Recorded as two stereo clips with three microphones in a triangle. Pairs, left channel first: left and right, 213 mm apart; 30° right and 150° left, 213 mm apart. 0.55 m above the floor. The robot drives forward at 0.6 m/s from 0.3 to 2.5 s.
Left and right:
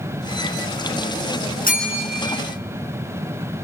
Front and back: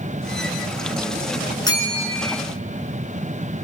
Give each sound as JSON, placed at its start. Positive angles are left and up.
{"t": 1.6, "sound": "a bell", "azimuth_deg": 40, "distance_m": 3.5}